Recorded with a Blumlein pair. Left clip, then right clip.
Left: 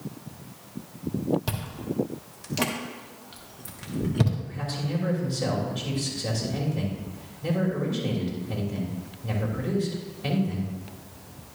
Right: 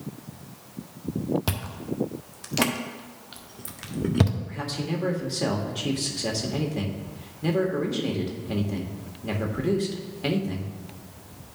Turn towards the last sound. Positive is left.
turn(degrees=-35)